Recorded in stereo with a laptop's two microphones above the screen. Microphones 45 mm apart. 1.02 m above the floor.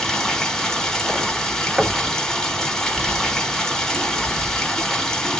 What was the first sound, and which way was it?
Running water, 10° left (ahead or behind).